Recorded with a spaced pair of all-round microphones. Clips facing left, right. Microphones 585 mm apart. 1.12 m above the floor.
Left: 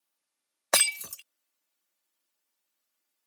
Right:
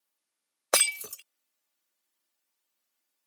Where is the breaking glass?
25° left (ahead or behind).